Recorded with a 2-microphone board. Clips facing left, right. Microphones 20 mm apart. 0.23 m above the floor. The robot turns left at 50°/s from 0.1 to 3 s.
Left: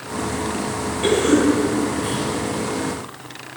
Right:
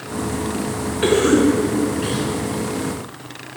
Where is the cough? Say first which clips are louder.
Right 2 dB; 60° right (ahead or behind), 2.5 m; by 2.3 s 30° right (ahead or behind), 2.5 m.